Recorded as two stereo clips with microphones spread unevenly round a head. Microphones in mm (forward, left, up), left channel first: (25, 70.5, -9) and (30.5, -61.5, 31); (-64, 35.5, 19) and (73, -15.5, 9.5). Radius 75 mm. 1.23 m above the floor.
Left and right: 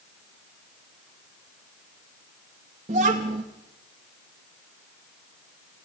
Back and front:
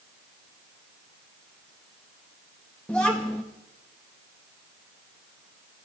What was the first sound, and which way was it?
A child speaking, 120° right.